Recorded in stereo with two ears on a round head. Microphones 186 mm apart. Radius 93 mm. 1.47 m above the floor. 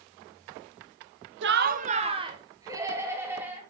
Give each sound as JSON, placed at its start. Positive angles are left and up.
{"t": 1.4, "sound": "laughter", "side_deg": -60, "distance_m": 1.0}